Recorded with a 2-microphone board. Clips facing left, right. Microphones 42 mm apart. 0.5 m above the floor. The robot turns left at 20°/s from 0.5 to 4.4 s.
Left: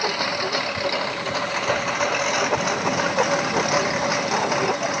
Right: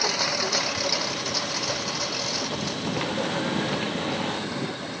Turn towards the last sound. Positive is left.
turn(degrees=90)